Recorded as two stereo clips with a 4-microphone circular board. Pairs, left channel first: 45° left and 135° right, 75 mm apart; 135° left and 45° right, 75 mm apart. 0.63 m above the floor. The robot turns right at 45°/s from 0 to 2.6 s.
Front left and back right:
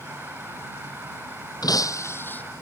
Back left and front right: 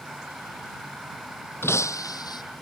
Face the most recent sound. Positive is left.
turn(degrees=120)